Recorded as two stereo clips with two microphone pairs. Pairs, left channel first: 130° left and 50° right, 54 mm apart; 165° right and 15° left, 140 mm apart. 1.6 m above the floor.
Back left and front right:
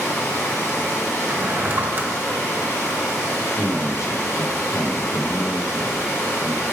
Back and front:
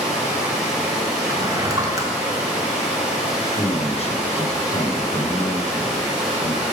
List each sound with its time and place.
0.0 s running water: 100° left, 3.5 m
1.3 s a drawer: 30° right, 0.9 m
3.4 s a man speaking: 150° left, 0.9 m